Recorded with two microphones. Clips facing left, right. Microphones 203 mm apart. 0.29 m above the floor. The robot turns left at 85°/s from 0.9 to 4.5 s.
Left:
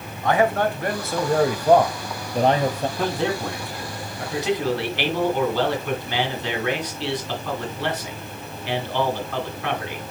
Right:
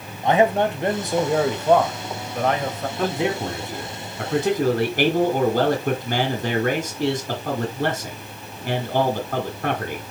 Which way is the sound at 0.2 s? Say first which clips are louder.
Right 2 dB; 135° right.